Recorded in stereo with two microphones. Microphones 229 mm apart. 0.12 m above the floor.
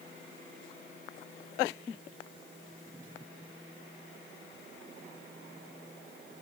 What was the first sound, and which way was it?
Only background noise.